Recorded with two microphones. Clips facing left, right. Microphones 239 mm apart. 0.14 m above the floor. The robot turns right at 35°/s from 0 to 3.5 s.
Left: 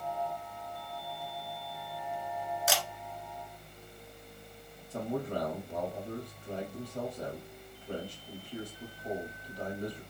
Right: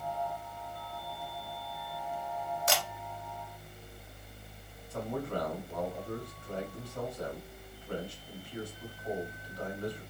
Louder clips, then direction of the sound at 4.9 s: Left 1 dB; 35° left (ahead or behind).